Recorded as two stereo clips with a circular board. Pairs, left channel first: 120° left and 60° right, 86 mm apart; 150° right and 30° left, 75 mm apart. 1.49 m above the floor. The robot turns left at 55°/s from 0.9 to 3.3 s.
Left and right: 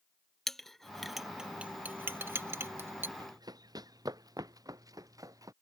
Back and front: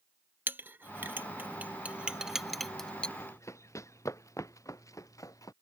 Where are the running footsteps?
95° right; by 5.5 s 110° right.